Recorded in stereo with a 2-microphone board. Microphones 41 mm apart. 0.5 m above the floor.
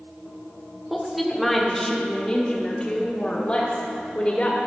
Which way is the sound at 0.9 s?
5° right (ahead or behind).